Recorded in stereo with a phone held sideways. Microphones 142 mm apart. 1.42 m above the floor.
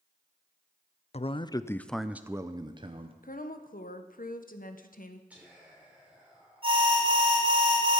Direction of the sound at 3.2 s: 80° left.